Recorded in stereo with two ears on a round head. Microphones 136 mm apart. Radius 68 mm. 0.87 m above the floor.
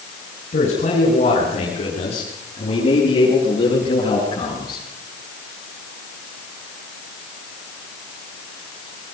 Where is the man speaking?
50° left (ahead or behind), 9 m; by 4.9 s 30° left (ahead or behind), 13 m.